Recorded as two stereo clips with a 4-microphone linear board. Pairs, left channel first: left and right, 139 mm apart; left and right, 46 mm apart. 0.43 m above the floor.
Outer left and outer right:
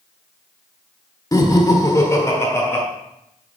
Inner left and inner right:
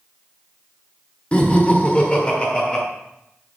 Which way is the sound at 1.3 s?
25° left (ahead or behind).